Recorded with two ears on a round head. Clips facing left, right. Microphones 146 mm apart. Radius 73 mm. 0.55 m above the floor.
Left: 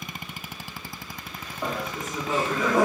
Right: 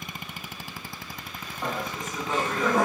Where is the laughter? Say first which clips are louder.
Left 1 dB; 5° left (ahead or behind), 1.0 m.